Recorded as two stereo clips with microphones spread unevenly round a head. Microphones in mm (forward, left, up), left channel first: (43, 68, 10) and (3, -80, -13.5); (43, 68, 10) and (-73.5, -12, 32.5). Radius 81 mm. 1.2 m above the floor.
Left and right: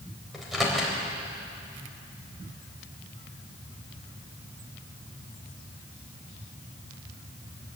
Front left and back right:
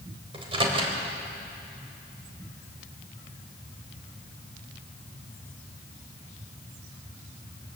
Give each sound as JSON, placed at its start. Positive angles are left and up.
{"t": 0.3, "sound": "a microwave", "azimuth_deg": 165, "distance_m": 3.5}